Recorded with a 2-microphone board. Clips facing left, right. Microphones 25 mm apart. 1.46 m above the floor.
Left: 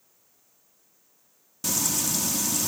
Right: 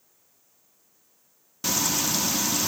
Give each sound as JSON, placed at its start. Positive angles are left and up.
{"t": 1.6, "sound": "frying", "side_deg": -25, "distance_m": 1.0}